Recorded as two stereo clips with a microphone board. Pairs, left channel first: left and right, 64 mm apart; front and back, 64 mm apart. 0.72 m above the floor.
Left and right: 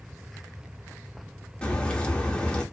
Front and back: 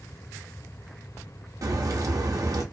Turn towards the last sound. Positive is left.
turn(degrees=160)